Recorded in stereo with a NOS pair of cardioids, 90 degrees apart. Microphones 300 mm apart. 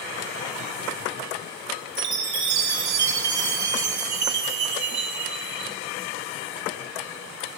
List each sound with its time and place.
2.0 s a chime: 65° right, 2 m